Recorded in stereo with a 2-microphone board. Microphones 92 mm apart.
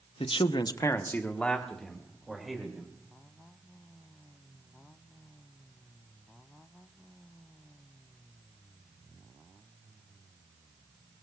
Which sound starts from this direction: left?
A man speaking, at 0.2 s.